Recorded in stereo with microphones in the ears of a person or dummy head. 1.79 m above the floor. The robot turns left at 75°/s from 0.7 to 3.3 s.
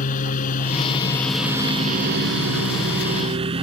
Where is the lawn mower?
45° left; by 3.6 s 150° right.